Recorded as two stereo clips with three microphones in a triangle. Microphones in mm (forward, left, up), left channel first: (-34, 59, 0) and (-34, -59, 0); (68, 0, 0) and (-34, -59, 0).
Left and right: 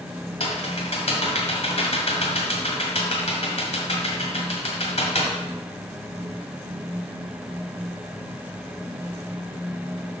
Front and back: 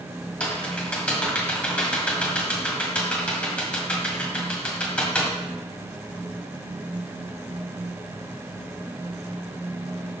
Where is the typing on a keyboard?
110° left, 1.7 m.